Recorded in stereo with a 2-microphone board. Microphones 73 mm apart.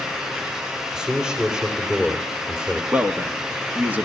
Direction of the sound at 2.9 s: 20° right (ahead or behind).